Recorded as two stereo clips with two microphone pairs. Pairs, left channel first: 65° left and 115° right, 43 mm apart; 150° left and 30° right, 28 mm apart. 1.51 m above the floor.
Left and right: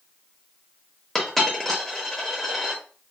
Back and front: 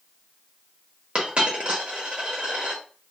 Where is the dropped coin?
15° right, 1.0 m.